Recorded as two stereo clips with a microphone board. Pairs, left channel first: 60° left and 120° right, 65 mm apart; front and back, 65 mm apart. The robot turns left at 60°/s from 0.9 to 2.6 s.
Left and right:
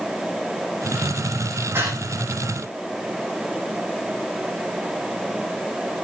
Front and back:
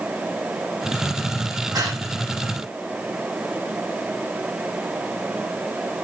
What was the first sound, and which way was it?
Breathing, 170° right.